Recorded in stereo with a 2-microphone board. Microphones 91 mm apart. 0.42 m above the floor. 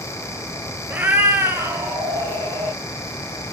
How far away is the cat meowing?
About 0.8 m.